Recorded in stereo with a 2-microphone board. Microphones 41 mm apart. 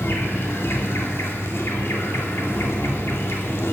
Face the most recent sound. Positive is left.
turn(degrees=75)  # may be behind; listen again after turning